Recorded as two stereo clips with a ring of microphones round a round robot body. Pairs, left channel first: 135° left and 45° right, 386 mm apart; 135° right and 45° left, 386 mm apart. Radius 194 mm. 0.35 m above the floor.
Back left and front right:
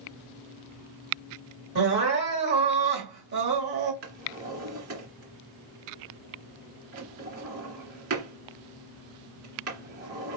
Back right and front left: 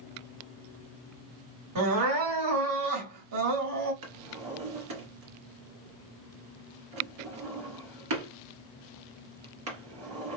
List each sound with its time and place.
1.8 s crying: 10° left, 2.5 m
4.0 s a drawer: 10° left, 2.5 m